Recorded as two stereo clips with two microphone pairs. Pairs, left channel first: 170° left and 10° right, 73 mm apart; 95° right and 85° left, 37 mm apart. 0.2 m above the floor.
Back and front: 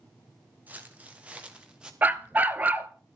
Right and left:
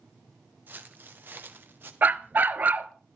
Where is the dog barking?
55° left, 0.8 m.